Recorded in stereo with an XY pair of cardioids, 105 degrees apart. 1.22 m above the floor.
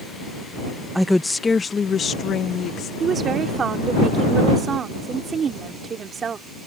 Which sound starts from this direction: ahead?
A woman speaking, at 0.9 s.